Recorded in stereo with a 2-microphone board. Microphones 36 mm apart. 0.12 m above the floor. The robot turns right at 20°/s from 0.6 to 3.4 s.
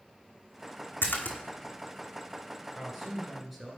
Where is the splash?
70° left (ahead or behind), 1.3 m; by 1.4 s 65° left (ahead or behind), 1.3 m.